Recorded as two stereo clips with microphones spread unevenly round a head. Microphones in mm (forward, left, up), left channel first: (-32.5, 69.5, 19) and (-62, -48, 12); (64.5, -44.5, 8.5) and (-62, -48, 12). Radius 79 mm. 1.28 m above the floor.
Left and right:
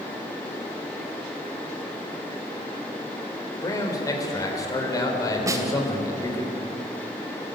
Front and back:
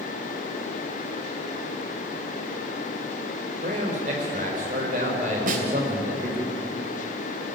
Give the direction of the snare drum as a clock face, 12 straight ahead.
6 o'clock.